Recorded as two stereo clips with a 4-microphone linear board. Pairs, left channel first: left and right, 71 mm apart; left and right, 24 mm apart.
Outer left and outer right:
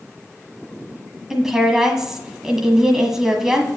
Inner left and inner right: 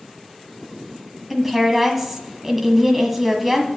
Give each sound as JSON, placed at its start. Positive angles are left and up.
{"t": 1.3, "sound": "a woman speaking", "side_deg": -5, "distance_m": 1.6}